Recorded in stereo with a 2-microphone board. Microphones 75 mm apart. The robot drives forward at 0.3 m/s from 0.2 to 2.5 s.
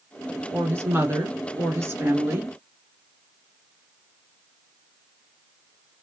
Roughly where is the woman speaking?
Right.